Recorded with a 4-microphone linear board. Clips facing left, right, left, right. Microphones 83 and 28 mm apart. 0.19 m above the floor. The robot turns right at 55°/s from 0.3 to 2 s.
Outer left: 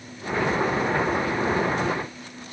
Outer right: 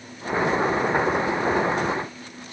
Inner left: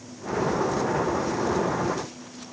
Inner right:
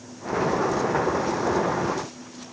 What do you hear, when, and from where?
Only background noise.